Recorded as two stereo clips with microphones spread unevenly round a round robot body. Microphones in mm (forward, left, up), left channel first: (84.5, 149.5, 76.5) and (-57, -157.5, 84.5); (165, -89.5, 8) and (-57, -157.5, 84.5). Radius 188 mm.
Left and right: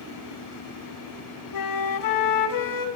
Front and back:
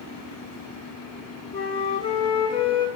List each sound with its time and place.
1.5 s a flute: 100° left, 0.5 m